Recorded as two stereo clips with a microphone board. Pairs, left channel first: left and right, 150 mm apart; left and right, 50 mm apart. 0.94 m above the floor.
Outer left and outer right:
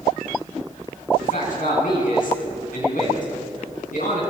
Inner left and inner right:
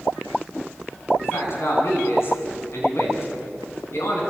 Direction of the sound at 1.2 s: 65° left (ahead or behind).